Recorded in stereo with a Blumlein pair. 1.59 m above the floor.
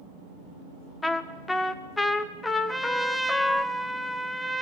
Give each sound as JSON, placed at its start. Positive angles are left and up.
{"t": 1.0, "sound": "a trumpet", "azimuth_deg": 10, "distance_m": 1.1}
{"t": 2.7, "sound": "a trumpet", "azimuth_deg": 0, "distance_m": 0.9}